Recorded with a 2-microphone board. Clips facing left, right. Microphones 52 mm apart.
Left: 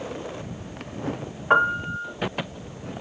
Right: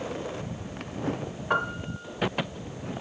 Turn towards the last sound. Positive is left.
turn(degrees=25)  # may be behind; listen again after turning